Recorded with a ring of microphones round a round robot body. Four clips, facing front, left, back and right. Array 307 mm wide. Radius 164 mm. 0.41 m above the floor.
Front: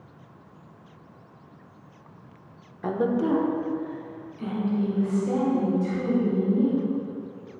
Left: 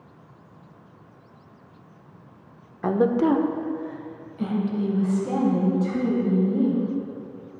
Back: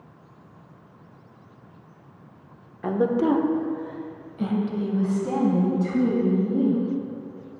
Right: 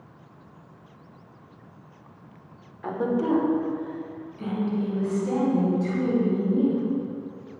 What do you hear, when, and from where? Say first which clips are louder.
2.8 s a woman speaking: left 5 dB, back 3 dB; 95° left, 0.9 m; by 6.8 s 160° left, 4.5 m